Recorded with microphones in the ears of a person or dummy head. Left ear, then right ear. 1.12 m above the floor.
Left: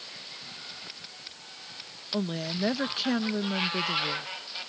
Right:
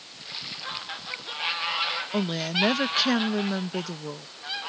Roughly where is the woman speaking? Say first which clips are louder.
Right 6 dB; centre.